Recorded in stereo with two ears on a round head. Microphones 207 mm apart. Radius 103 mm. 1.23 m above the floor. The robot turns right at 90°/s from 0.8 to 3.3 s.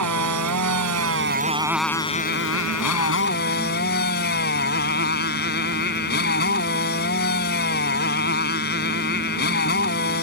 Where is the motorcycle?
90° right; by 10.2 s 135° left.